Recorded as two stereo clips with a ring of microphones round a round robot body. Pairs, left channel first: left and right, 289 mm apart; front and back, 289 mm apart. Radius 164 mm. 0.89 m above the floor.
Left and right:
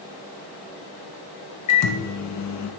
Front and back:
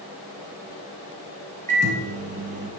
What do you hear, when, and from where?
1.7 s a microwave: 115° left, 0.7 m